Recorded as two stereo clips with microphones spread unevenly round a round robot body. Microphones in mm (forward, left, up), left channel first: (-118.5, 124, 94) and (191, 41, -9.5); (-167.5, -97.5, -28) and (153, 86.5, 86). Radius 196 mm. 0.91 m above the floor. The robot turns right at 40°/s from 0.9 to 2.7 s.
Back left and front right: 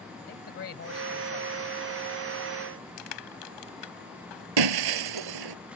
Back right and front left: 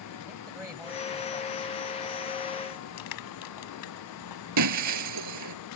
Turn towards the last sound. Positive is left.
turn(degrees=-10)